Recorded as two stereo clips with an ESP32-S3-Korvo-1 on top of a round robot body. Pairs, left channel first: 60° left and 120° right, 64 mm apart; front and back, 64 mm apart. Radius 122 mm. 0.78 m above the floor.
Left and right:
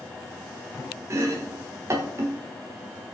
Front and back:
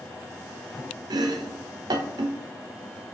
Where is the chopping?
165° right, 0.5 m.